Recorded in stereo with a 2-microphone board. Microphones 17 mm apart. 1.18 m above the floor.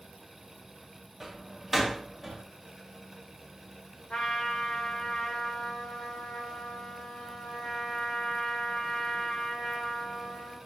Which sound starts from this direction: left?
A trumpet, at 4.1 s.